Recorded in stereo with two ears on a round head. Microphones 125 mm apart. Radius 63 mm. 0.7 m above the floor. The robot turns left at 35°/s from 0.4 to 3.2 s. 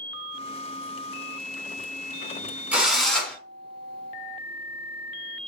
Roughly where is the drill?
Centre.